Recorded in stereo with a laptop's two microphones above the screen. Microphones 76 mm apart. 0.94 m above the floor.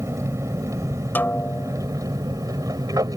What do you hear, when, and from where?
0.0 s an aircraft: 40° right (ahead or behind); by 3.2 s 55° right (ahead or behind)
1.1 s a snare drum: 25° left (ahead or behind)